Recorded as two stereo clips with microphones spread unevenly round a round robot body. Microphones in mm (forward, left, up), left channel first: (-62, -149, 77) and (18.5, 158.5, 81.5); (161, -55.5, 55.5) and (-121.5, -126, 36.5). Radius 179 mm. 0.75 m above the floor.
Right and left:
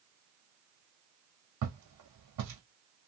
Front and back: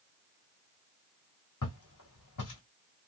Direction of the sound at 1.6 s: 45° left.